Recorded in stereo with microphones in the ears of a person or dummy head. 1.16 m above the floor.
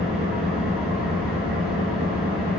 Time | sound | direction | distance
0.0 | an engine running | 5° right (ahead or behind) | 1.3 m